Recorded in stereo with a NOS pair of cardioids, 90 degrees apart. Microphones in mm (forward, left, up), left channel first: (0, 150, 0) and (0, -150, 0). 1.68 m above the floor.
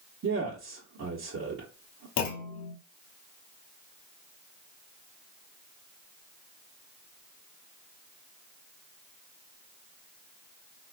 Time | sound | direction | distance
0.2 | a man speaking | 45° right | 1.1 m
2.2 | a clunk | 65° left | 0.8 m